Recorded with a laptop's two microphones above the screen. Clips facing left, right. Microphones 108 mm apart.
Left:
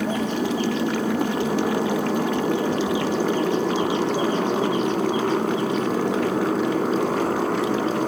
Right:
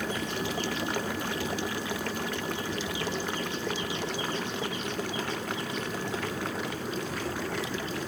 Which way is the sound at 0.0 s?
65° left (ahead or behind).